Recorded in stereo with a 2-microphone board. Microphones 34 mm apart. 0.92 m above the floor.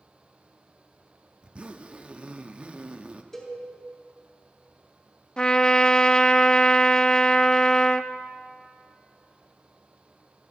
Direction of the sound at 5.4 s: 30° left (ahead or behind).